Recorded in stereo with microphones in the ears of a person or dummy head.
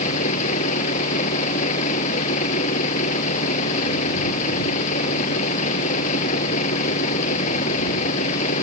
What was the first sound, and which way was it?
A vehicle, 45° left (ahead or behind).